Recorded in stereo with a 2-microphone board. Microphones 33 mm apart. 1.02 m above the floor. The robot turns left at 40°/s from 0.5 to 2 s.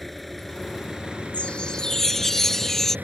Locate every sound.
0.0 s an engine running: straight ahead; by 3.0 s 60° right
1.3 s a chime: 35° left (ahead or behind); by 3.0 s 10° left (ahead or behind)